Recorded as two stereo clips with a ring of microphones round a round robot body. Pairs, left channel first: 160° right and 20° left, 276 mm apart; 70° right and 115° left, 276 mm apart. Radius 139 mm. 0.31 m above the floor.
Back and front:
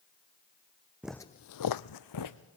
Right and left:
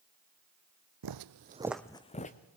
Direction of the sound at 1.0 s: 110° left.